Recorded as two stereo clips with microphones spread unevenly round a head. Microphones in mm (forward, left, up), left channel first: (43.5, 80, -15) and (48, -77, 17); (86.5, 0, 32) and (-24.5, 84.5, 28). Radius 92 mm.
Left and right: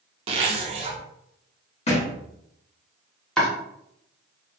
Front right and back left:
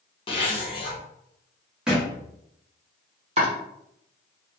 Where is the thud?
60° left, 1.1 m.